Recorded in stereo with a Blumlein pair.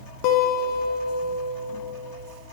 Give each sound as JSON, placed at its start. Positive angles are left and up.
{"t": 0.2, "sound": "a guitar", "azimuth_deg": 40, "distance_m": 0.7}